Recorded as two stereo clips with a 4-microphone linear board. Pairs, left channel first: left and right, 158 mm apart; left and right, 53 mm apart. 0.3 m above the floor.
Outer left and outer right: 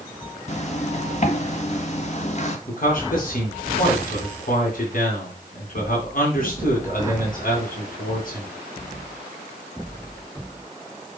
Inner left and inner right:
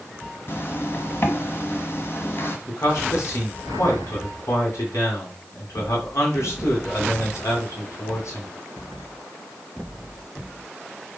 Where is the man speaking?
60° left (ahead or behind), 2.5 m.